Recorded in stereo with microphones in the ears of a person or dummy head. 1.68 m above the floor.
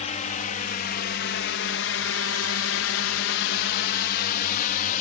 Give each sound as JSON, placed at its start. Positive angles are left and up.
{"t": 0.0, "sound": "a drone", "side_deg": 40}